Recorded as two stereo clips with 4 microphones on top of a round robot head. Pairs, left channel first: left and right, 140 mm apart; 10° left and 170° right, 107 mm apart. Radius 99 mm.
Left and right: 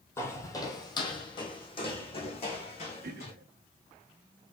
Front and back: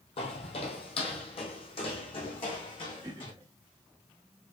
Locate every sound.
0.2 s footsteps: 20° left, 1.3 m; by 3.3 s 50° left, 2.5 m
3.0 s throat clearing: 105° right, 1.2 m